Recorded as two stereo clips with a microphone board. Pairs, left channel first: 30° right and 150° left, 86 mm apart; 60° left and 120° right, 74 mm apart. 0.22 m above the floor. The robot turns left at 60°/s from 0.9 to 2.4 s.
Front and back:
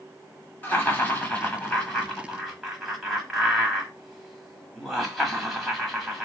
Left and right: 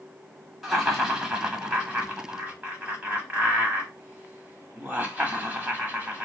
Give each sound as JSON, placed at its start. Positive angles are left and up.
{"t": 0.6, "sound": "laughter", "azimuth_deg": -30, "distance_m": 1.2}